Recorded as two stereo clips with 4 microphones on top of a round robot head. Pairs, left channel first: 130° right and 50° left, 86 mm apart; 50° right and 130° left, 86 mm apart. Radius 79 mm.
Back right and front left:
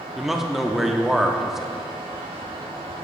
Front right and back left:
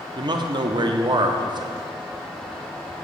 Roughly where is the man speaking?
Behind left.